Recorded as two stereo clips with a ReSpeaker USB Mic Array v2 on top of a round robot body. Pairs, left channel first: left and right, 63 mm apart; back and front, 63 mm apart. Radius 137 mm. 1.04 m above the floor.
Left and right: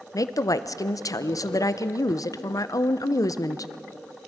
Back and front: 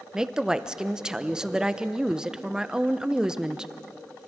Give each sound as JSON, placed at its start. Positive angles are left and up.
{"t": 0.1, "sound": "a woman speaking", "azimuth_deg": 80, "distance_m": 0.9}